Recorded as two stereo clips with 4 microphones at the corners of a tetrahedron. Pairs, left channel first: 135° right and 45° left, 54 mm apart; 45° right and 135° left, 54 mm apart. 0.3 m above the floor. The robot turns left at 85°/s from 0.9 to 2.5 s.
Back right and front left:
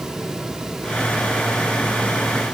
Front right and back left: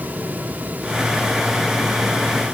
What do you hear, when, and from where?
Only background noise.